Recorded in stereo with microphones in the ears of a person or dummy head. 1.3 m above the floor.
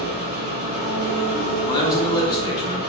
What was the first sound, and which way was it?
An engine running, 35° right (ahead or behind).